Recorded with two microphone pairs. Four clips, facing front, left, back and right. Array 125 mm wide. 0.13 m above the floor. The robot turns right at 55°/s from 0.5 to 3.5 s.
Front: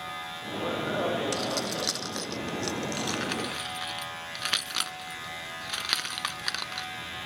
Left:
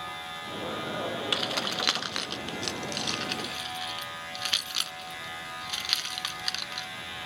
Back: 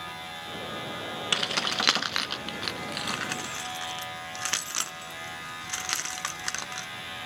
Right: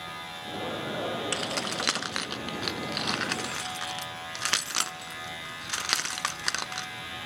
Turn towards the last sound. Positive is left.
turn(degrees=-85)